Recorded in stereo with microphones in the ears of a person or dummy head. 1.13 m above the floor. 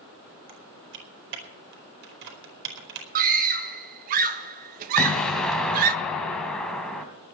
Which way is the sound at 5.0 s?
5° left (ahead or behind).